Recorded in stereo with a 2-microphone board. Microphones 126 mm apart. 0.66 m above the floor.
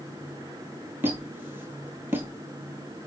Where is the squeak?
15° right (ahead or behind), 0.9 m.